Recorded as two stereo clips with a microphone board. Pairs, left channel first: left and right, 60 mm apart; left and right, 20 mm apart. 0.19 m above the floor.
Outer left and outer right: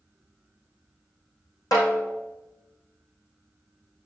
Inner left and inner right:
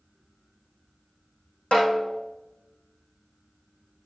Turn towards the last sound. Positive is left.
turn(degrees=80)